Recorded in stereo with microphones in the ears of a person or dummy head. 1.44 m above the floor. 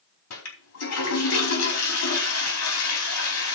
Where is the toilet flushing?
85° left, 4 m.